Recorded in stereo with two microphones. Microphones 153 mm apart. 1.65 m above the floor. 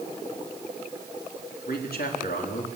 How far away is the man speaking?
About 3.5 m.